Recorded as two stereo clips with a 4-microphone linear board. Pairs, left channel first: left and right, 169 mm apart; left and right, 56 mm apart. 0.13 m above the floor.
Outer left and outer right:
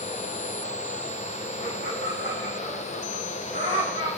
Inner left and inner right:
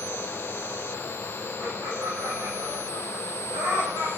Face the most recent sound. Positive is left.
turn(degrees=-75)  # may be behind; listen again after turning